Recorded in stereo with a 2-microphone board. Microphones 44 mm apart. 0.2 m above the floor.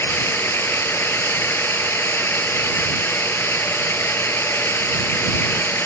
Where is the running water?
70° left (ahead or behind).